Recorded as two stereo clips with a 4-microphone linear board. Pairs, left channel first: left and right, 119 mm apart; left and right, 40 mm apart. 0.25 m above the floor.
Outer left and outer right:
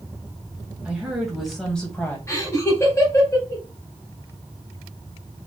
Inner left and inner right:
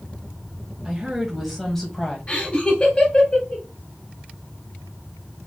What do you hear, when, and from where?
0.8 s a woman speaking: 10° right (ahead or behind), 1.6 m; by 2.2 s 15° left (ahead or behind), 1.5 m
2.3 s laughter: 25° left (ahead or behind), 1.2 m